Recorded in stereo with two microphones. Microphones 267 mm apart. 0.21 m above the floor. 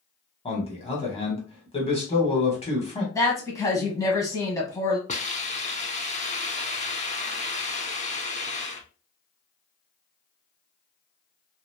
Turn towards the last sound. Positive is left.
turn(degrees=25)  # may be behind; listen again after turning